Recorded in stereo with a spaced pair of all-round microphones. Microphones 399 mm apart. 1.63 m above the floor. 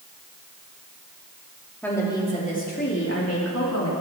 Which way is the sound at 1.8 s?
5° left (ahead or behind).